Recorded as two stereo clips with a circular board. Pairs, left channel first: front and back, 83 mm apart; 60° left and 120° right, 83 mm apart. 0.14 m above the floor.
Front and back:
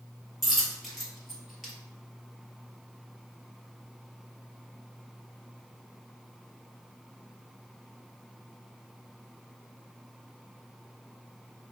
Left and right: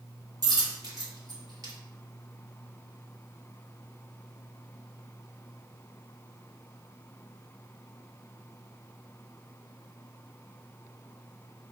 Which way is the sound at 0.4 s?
90° right.